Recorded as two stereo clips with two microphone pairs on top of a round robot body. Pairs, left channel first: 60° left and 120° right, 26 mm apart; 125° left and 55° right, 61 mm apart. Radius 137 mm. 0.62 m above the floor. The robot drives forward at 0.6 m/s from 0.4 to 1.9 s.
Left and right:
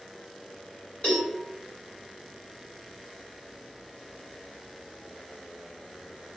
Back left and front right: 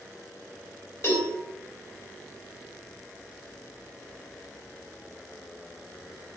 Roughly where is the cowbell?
Left.